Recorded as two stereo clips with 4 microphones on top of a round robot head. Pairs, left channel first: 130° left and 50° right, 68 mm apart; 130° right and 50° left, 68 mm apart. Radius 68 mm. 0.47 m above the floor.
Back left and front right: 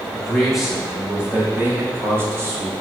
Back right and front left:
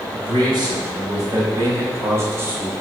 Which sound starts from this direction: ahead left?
A man speaking, at 0.1 s.